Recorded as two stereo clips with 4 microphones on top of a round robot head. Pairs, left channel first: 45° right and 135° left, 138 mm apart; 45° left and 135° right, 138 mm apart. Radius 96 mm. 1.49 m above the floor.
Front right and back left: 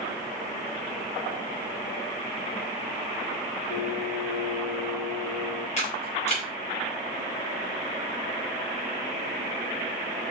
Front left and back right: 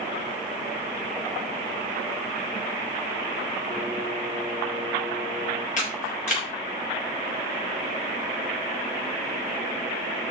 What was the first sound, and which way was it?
Singing, 35° right.